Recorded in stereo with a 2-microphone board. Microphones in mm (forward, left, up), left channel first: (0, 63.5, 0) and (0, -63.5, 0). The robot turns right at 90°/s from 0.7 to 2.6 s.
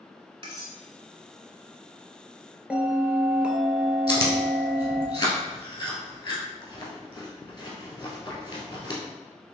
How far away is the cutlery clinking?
About 0.9 m.